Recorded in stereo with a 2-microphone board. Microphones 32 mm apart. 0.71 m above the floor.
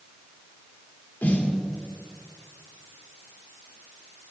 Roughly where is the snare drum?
Left.